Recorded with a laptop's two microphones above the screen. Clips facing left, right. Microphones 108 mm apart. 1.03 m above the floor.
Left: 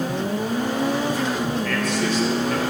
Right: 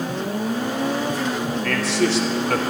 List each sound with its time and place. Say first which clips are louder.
1.6 s a man speaking: right 2 dB; 70° right (ahead or behind), 1.5 m